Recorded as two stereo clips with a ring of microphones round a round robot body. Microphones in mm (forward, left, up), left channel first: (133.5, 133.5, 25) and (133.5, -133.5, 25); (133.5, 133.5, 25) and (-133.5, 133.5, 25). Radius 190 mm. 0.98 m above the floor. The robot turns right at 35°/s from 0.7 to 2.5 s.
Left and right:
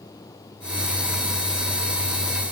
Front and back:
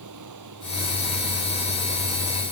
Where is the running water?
170° left; by 2.5 s 125° right.